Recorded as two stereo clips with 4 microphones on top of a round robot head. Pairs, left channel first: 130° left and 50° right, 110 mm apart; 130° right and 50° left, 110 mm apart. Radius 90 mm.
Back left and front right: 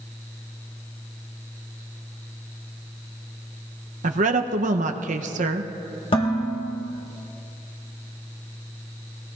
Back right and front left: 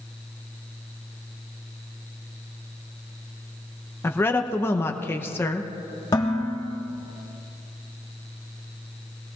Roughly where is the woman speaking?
Ahead right.